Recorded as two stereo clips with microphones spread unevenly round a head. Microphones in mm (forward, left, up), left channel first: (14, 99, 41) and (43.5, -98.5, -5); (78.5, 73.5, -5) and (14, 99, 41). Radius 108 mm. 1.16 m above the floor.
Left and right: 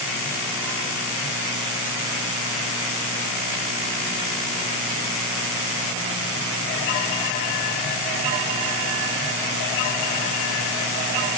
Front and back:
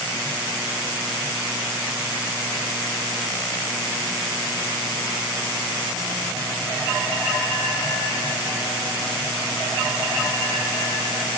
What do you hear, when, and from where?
Only background noise.